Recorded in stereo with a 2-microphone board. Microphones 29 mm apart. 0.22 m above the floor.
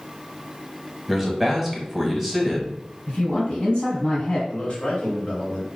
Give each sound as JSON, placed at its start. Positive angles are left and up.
{"t": 1.1, "sound": "a man speaking", "side_deg": -5, "distance_m": 1.0}
{"t": 3.1, "sound": "a man speaking", "side_deg": 30, "distance_m": 1.6}
{"t": 4.5, "sound": "a man speaking", "side_deg": 45, "distance_m": 1.3}